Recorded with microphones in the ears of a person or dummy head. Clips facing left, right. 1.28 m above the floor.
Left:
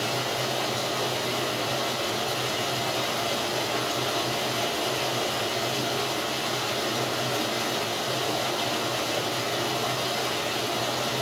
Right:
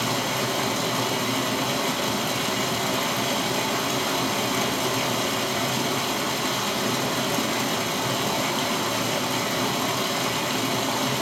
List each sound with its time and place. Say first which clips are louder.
0.0 s running water: right 2 dB; 75° right (ahead or behind), 1.1 m